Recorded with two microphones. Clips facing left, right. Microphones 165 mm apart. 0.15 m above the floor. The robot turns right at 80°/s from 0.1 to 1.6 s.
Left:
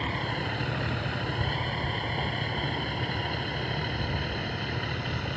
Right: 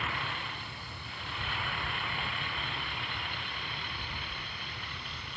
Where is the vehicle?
35° left (ahead or behind); by 5.4 s 65° left (ahead or behind).